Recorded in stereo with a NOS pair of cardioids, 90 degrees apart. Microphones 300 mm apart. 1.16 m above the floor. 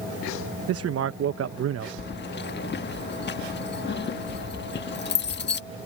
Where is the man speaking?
50° right.